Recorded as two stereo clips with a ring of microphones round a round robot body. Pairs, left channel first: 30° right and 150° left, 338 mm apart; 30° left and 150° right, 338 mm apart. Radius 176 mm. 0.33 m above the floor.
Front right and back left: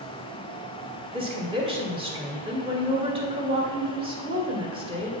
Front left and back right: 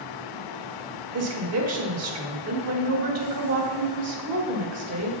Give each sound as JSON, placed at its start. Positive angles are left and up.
{"t": 1.1, "sound": "a woman speaking", "azimuth_deg": -140, "distance_m": 1.9}